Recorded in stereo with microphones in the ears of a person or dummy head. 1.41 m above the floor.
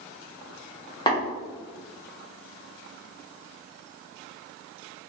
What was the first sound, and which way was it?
Tapping, 25° left (ahead or behind).